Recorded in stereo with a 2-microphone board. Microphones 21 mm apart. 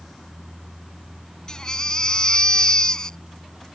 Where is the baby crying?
35° left (ahead or behind).